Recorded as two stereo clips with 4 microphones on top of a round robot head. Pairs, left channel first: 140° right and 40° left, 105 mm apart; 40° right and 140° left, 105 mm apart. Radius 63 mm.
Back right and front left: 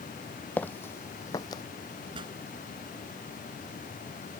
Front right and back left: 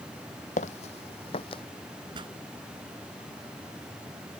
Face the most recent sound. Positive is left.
turn(degrees=90)